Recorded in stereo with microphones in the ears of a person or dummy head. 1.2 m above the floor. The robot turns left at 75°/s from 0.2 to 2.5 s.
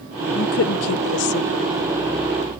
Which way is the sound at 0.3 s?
45° left (ahead or behind).